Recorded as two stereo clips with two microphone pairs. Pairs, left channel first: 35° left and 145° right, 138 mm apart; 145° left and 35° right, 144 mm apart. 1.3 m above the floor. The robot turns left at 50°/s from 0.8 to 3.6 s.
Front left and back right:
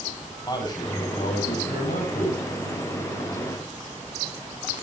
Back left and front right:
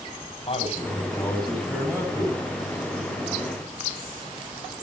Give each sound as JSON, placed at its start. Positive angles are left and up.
{"t": 0.5, "sound": "a man speaking", "azimuth_deg": 100, "distance_m": 8.5}